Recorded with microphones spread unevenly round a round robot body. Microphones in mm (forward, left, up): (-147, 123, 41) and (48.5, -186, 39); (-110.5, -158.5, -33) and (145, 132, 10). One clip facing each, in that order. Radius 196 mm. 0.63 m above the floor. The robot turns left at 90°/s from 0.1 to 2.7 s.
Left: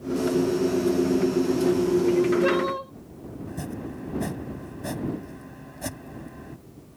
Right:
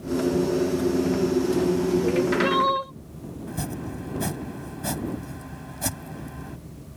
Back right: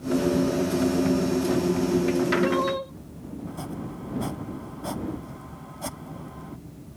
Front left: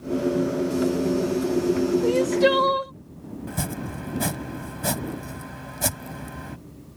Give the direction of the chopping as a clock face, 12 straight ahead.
12 o'clock.